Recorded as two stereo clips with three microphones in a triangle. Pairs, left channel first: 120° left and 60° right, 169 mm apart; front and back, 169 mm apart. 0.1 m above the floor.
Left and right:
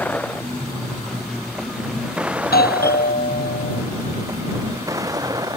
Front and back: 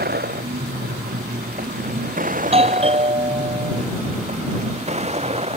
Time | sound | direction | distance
0.0 | a vehicle | 160° right | ?
2.4 | a doorbell | 130° left | ?